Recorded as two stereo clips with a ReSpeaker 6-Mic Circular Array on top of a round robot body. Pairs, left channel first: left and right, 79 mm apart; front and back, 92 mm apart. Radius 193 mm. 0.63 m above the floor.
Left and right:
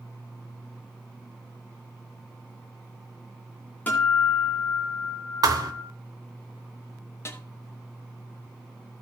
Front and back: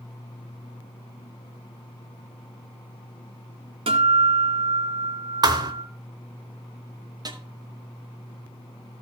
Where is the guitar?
160° left, 2 m.